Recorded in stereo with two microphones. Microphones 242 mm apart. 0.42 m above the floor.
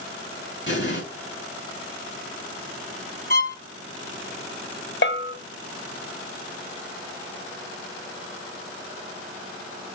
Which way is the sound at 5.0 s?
50° left (ahead or behind).